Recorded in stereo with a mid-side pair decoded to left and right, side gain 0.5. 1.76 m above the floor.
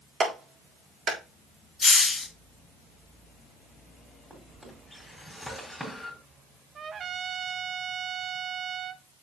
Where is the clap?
45° right, 4 m.